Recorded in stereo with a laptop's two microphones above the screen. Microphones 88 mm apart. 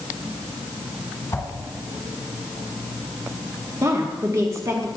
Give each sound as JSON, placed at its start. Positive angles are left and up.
{"t": 1.3, "sound": "a whoosh", "side_deg": 35, "distance_m": 1.3}
{"t": 3.8, "sound": "a woman speaking", "side_deg": -35, "distance_m": 1.4}